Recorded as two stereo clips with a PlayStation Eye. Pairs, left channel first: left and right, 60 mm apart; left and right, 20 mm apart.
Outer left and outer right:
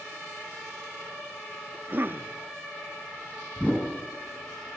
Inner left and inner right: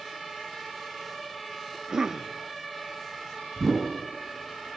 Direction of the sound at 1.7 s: 35° right (ahead or behind).